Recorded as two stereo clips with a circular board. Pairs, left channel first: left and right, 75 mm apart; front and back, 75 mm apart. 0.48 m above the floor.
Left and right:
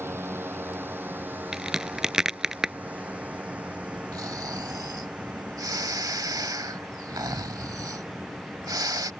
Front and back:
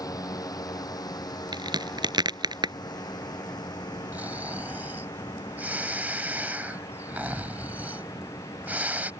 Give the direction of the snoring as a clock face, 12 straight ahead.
4 o'clock.